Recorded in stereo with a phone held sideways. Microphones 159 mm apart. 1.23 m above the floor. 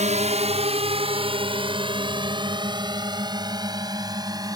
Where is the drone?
45° right (ahead or behind); by 4.6 s 25° right (ahead or behind).